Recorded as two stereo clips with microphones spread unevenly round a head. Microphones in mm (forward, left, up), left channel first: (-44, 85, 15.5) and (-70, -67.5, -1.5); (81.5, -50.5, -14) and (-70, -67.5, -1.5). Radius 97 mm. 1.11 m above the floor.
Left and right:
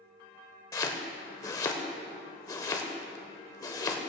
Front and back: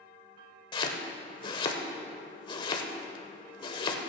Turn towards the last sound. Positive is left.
turn(degrees=45)